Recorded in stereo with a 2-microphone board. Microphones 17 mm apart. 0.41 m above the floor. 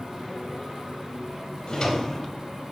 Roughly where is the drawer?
Left.